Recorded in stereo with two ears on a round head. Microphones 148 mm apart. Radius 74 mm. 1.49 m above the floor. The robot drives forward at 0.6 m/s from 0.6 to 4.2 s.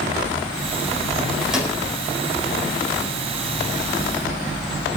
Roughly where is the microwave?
Centre.